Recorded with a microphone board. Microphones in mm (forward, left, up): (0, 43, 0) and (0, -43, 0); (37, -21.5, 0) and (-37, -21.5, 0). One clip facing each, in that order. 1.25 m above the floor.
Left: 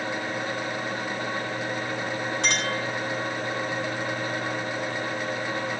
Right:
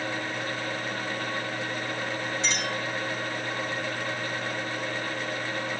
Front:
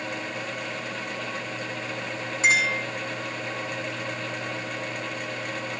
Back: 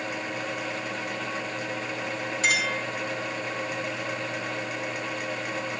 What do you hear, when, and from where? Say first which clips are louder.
2.4 s a clink: left 3 dB, front 4 dB; 65° left, 7 m